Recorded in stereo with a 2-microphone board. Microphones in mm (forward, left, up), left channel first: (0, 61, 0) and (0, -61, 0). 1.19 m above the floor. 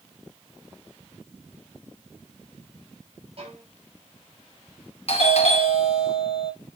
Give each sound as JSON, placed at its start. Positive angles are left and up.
{"t": 3.4, "sound": "a violin", "side_deg": -50, "distance_m": 5.0}
{"t": 5.1, "sound": "a doorbell", "side_deg": 55, "distance_m": 2.0}